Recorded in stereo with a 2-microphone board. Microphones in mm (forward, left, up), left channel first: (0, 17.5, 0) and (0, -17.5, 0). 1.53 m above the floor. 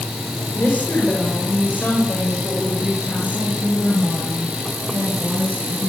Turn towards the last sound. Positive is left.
turn(degrees=65)  # may be behind; listen again after turning